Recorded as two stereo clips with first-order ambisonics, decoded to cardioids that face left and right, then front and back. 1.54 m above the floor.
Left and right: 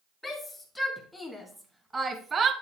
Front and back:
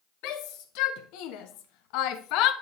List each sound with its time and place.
0.2 s a shout: 5° left, 2.5 m; by 2.5 s 30° right, 1.0 m